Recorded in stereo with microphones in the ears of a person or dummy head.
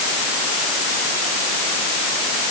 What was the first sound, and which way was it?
Only background noise.